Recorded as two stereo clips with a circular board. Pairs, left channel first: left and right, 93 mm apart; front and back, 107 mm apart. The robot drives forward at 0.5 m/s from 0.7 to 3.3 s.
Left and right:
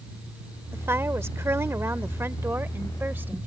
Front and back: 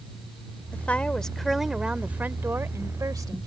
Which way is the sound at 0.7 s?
55° right.